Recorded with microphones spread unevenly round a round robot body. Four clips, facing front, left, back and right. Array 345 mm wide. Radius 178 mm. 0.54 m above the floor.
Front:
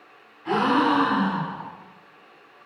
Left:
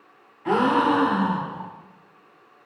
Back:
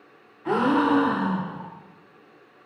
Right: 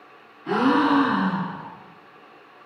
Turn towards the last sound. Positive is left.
turn(degrees=100)